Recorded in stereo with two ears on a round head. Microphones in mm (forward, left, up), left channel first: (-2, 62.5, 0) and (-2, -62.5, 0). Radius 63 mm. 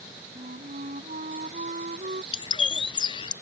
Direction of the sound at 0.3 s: 55° right (ahead or behind).